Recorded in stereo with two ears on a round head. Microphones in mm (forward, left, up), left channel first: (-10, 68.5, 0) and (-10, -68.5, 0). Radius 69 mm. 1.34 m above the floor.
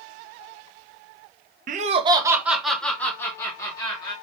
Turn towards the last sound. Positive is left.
turn(degrees=25)  # may be behind; listen again after turning